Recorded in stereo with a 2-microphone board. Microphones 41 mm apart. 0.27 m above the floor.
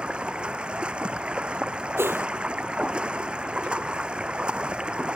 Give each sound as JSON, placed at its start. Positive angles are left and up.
{"t": 0.0, "sound": "running water", "side_deg": -25}
{"t": 2.0, "sound": "a whoosh", "side_deg": -70}